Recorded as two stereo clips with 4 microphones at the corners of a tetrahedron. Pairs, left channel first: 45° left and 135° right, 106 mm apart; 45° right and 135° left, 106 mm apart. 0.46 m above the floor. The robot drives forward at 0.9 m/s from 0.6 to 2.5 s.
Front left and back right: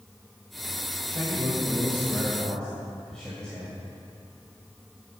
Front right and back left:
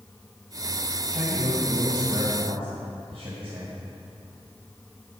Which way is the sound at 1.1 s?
95° left.